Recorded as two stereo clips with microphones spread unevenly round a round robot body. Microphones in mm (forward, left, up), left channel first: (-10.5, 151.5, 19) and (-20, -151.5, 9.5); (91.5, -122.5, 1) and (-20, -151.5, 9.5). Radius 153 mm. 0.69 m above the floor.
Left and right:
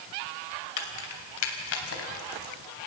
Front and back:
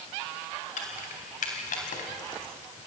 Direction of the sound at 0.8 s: 50° left.